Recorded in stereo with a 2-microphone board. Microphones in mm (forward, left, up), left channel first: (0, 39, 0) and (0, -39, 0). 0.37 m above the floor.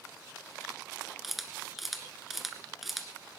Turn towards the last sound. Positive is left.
turn(degrees=0)  # may be behind; listen again after turning